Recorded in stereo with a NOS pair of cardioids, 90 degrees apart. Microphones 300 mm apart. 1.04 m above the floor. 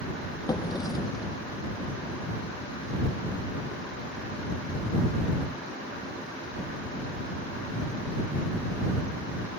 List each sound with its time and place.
0.5 s a drawer: 15° left